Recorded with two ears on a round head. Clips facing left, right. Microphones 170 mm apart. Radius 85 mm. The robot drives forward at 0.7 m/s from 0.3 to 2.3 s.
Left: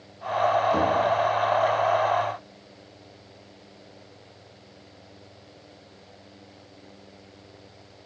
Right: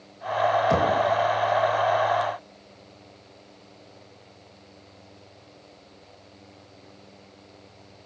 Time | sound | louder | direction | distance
0.7 | knocking | right 1 dB | 80° right | 4 m